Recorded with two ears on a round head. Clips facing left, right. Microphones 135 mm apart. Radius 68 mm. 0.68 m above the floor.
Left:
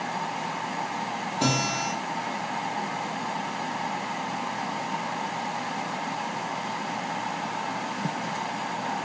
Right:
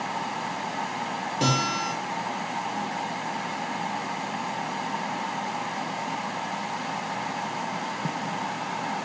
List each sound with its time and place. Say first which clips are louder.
1.4 s a guitar: even; 25° right (ahead or behind), 2.5 m